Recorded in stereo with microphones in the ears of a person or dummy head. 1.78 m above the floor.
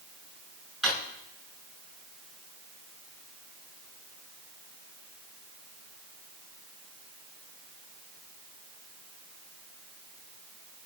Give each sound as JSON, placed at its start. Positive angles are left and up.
{"t": 0.8, "sound": "a drawer", "side_deg": 0, "distance_m": 5.5}